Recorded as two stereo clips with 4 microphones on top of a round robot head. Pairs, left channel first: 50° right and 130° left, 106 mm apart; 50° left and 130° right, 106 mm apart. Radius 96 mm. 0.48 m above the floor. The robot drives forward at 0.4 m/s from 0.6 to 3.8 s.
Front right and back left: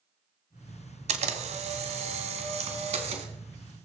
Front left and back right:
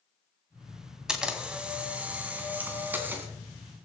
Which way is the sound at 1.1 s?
145° left.